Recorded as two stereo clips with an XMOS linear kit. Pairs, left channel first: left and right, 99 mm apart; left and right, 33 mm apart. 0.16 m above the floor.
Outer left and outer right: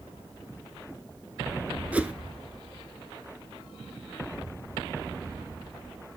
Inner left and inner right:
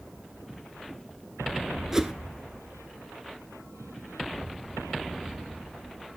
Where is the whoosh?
15° right (ahead or behind), 0.7 m.